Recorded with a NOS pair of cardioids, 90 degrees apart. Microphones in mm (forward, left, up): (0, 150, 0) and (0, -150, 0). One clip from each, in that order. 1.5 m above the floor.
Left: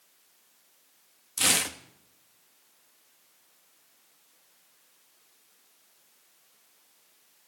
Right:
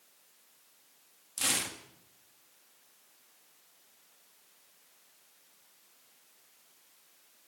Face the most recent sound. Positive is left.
turn(degrees=40)